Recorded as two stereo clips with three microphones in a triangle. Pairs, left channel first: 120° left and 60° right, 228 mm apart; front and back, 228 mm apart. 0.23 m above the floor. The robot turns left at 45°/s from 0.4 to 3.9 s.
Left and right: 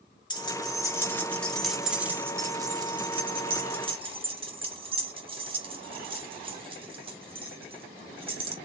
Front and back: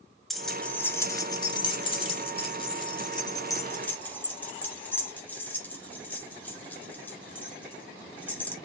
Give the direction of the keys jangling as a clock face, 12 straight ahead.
9 o'clock.